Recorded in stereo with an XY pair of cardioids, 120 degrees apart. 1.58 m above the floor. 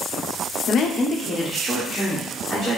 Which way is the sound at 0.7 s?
60° left.